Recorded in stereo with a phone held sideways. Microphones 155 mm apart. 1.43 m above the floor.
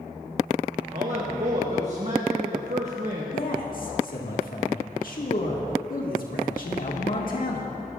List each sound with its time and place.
0.9 s a man speaking: 50° right (ahead or behind), 1.4 m
3.3 s a man speaking: 65° left (ahead or behind), 1.7 m